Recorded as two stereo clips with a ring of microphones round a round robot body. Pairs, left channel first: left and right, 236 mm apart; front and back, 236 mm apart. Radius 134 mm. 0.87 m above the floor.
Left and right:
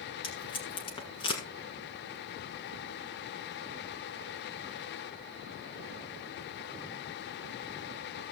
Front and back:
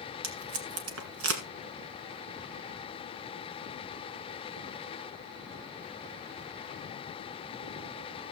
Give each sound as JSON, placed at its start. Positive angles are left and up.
{"t": 0.2, "sound": "tape being pulled", "azimuth_deg": 160, "distance_m": 1.5}